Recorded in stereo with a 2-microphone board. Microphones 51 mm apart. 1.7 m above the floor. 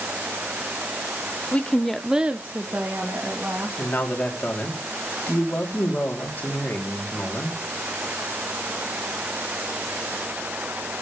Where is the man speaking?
35° left (ahead or behind), 2.5 m.